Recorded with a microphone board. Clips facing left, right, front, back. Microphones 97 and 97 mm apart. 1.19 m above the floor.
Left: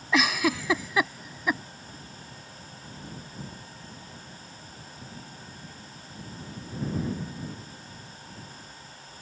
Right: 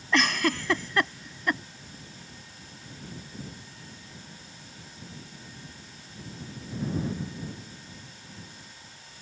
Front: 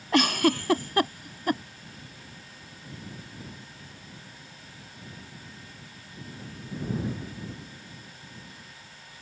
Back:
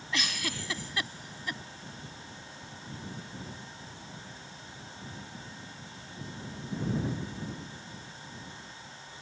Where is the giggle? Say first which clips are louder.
Left 1 dB, front 14 dB; 5° left.